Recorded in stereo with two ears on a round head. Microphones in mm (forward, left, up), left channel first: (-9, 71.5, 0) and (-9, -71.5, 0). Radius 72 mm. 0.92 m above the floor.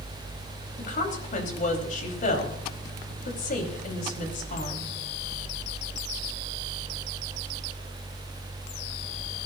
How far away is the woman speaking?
About 5 m.